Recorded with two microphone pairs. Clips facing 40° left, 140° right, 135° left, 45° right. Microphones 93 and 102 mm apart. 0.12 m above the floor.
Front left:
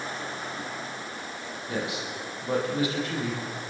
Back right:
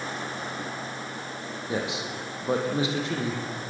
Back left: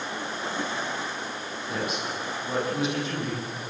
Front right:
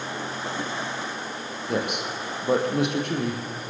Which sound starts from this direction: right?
A man speaking, at 1.7 s.